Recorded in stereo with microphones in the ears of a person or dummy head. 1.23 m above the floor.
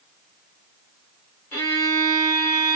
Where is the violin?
10° left (ahead or behind), 1.3 m.